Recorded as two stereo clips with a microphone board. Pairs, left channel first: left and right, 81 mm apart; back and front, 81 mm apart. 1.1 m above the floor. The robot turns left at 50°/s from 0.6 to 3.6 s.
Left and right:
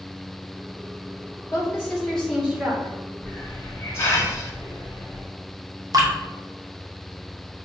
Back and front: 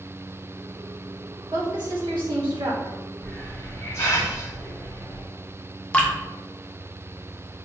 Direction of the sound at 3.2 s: 155° left.